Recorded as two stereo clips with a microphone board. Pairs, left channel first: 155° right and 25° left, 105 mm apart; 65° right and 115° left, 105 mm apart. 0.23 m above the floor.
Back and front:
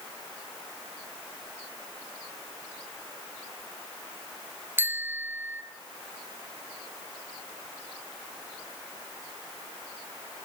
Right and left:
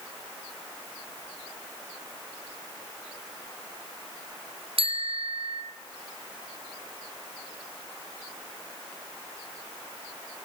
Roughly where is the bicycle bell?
Left.